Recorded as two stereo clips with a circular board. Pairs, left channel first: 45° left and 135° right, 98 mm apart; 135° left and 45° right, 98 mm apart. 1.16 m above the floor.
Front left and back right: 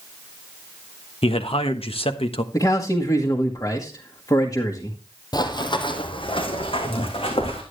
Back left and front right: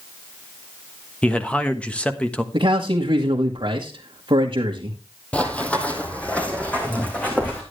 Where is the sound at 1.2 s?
60° left, 1.2 m.